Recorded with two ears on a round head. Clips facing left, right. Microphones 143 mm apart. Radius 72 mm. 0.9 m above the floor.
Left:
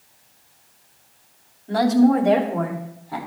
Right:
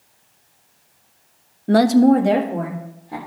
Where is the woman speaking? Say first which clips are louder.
Right 3 dB; 60° right (ahead or behind), 0.5 m; by 3.2 s 25° right (ahead or behind), 2.5 m.